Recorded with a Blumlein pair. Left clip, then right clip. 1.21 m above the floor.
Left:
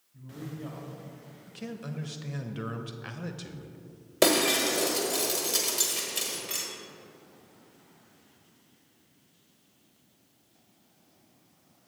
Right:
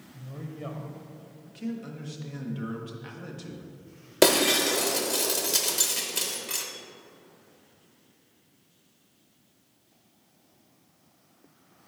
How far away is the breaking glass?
About 1.0 m.